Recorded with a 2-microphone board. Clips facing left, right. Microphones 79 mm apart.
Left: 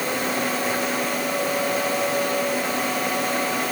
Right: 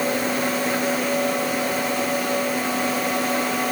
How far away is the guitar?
No guitar in this recording.